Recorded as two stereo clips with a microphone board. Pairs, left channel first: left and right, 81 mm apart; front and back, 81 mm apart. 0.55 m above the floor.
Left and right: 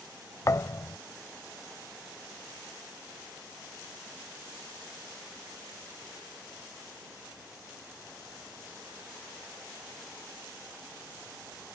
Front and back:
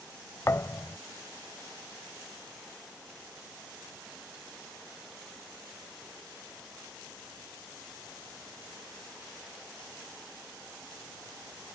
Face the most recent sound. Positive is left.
turn(degrees=50)